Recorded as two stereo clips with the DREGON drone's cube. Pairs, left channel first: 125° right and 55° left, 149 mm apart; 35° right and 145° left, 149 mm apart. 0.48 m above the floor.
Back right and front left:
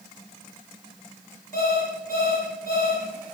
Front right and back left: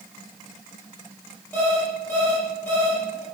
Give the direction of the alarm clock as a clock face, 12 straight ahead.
4 o'clock.